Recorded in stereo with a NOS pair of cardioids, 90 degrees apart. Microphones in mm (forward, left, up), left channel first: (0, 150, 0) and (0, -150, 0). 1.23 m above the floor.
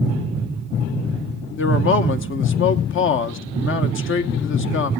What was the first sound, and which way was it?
A man speaking, 45° left.